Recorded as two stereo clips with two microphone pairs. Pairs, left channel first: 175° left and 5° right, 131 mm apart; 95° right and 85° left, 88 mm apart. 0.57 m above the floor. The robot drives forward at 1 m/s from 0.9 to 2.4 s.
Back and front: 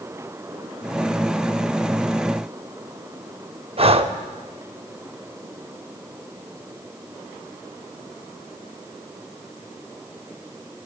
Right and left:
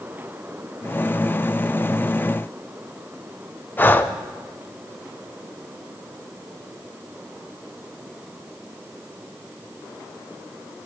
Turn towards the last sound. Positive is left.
turn(degrees=-35)